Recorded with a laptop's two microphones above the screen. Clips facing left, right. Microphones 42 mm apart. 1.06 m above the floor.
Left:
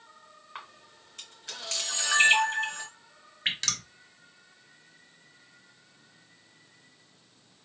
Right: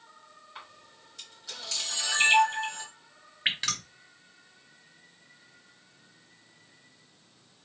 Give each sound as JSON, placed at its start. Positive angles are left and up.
{"t": 0.6, "sound": "a camera shutter", "side_deg": 50, "distance_m": 2.5}
{"t": 3.5, "sound": "dripping", "side_deg": -15, "distance_m": 1.0}